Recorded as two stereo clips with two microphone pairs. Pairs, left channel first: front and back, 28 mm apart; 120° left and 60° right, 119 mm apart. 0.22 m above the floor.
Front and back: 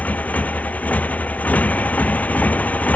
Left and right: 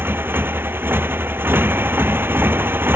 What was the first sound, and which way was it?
A motorcycle, 10° left.